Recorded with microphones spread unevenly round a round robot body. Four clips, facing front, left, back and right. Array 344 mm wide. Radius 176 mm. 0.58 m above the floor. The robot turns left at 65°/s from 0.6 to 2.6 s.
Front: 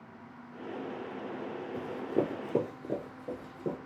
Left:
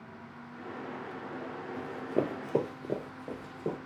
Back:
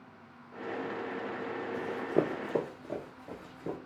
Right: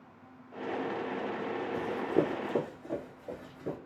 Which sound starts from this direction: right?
Running footsteps, at 1.7 s.